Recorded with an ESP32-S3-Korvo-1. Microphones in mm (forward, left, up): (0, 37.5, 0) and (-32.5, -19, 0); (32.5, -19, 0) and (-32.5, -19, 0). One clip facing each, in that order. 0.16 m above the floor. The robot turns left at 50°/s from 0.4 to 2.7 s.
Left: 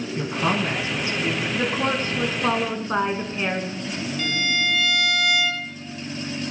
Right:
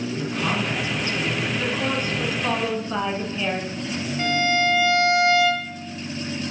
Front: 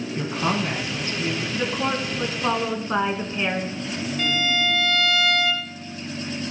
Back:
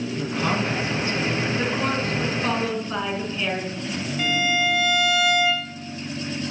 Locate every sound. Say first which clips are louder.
0.2 s a woman speaking: left 4 dB, front 1 dB; 50° left, 1.6 m; by 1.4 s 5° right, 1.6 m
1.5 s a woman speaking: left 1 dB, back 1 dB; 100° left, 1.5 m; by 3.8 s 45° left, 1.5 m
4.2 s a violin: right 5 dB, back 2 dB; 115° right, 1.1 m